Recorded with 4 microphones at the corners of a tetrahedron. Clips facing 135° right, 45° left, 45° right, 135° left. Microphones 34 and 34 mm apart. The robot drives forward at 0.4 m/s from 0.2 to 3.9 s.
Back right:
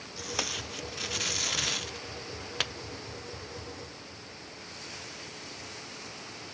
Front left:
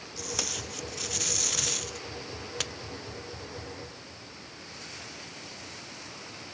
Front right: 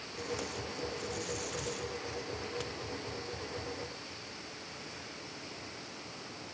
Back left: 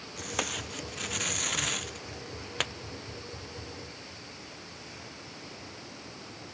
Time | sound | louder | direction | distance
0.2 | tape being pulled | back right 1 dB, back left 4 dB | 150° left | ?